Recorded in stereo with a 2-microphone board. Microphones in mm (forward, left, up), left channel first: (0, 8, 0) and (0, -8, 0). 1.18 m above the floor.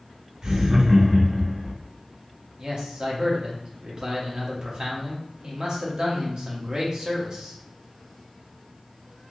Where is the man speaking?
50° right (ahead or behind), 0.9 m.